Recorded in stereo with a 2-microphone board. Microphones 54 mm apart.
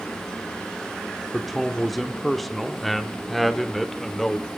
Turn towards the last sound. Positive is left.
turn(degrees=5)  # may be behind; listen again after turning